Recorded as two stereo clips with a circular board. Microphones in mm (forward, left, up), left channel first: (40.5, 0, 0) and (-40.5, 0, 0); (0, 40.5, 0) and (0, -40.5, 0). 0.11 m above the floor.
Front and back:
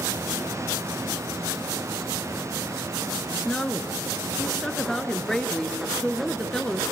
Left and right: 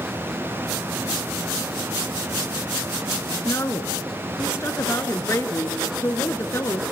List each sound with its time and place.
3.5 s a woman speaking: 75° left, 1.4 m